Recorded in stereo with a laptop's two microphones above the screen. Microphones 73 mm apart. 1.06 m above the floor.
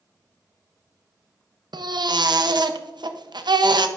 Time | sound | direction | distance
1.7 | a baby crying | 80° right | 0.5 m